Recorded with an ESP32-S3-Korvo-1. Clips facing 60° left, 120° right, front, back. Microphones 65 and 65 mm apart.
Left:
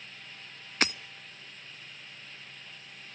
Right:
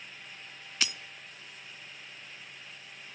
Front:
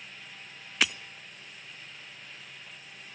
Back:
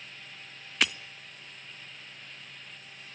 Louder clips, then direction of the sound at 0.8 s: Left 6 dB, even; 90° left.